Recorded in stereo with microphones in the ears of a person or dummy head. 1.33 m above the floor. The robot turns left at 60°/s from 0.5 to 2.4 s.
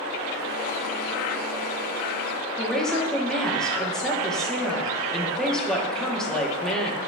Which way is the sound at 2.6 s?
5° left (ahead or behind).